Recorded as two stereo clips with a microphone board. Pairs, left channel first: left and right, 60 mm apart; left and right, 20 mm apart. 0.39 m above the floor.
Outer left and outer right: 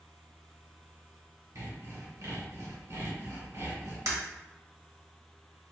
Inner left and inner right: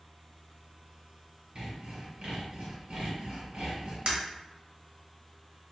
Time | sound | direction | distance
1.6 | sawing | 65° right (ahead or behind) | 1.5 m
4.1 | breaking glass | 65° right (ahead or behind) | 1.0 m